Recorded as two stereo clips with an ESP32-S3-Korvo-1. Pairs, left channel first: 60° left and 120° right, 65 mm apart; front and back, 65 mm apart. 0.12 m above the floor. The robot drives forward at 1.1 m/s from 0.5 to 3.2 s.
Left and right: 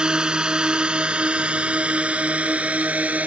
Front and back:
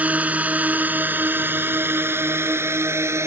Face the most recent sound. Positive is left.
turn(degrees=180)